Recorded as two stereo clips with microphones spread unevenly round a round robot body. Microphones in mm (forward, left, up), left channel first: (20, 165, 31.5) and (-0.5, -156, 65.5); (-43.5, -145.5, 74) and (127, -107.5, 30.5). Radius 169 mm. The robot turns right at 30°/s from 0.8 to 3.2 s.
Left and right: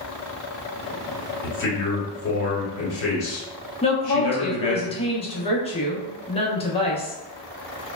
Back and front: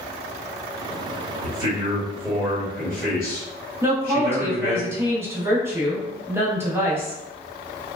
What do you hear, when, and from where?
1.4 s a man speaking: 50° left, 1.1 m; by 4.8 s 105° left, 1.1 m
3.8 s a woman speaking: 45° left, 0.7 m